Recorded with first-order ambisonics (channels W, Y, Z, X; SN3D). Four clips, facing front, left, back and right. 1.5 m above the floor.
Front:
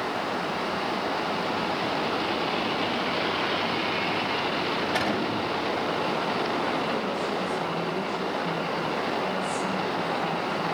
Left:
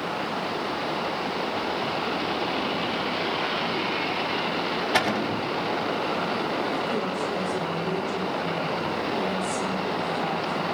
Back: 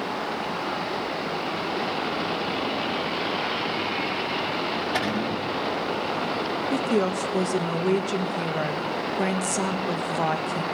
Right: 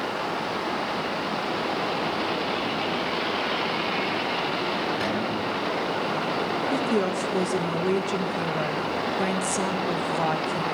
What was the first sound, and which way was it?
A cupboard door, 95° left.